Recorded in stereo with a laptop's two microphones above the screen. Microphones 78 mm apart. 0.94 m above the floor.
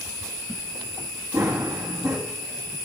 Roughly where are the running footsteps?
Right.